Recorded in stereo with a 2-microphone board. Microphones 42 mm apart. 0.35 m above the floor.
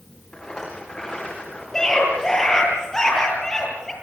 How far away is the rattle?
About 8.5 m.